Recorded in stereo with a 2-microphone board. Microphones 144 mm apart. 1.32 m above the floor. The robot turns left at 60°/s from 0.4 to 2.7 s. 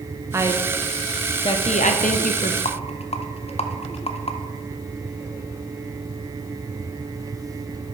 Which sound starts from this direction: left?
A rattle, at 2.6 s.